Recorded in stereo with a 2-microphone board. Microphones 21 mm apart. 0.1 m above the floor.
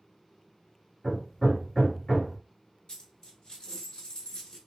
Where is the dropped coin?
35° left (ahead or behind), 0.8 m.